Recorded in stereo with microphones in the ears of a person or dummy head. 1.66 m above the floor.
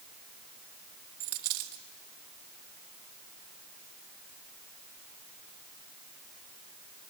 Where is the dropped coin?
55° right (ahead or behind), 2.0 m.